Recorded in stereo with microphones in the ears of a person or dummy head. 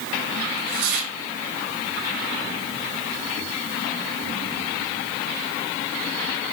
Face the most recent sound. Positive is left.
turn(degrees=-50)  # may be behind; listen again after turning